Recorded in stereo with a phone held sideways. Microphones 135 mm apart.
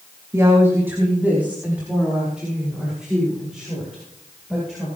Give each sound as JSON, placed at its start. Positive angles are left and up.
{"t": 0.3, "sound": "a woman speaking", "side_deg": -20, "distance_m": 2.5}